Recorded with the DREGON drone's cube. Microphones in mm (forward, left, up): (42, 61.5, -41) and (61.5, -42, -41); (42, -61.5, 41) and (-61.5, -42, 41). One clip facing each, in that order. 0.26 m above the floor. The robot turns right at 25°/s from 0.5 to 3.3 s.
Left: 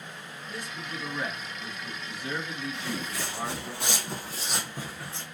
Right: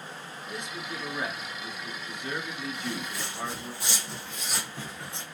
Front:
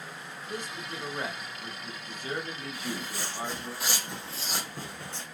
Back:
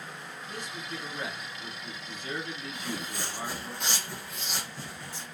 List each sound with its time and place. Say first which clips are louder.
0.5 s a man speaking: right 1 dB, front 2 dB; 25° right, 1.3 m; by 3.7 s 45° left, 1.3 m
2.7 s footsteps: even, even; 100° left, 1.1 m; by 5.2 s 10° left, 1.0 m